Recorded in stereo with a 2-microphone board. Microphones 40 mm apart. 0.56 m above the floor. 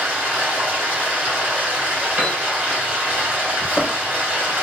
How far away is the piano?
About 1.1 m.